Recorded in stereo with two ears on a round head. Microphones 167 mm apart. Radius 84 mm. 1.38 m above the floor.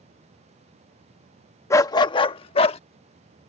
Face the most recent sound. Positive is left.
turn(degrees=30)  # may be behind; listen again after turning